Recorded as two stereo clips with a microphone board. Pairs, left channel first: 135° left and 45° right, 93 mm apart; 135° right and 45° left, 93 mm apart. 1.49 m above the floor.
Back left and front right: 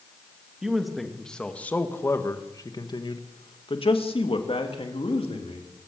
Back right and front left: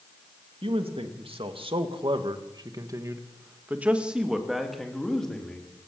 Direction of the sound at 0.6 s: 40° left.